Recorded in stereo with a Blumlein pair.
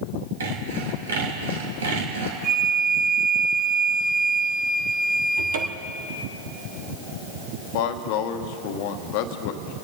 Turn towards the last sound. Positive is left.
turn(degrees=45)